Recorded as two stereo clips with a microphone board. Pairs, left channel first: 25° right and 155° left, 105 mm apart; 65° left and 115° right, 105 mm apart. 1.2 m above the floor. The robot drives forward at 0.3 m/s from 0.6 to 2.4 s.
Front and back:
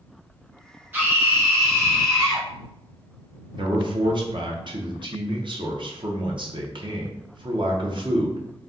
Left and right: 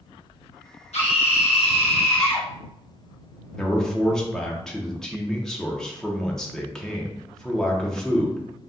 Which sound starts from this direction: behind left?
A man speaking, at 3.6 s.